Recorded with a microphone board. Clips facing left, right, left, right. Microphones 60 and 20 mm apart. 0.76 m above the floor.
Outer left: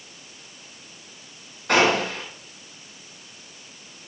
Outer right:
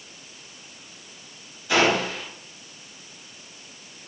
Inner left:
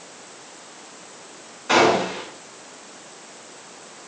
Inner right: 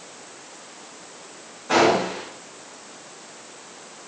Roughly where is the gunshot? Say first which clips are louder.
Outer left 1 dB, inner left 1 dB; left.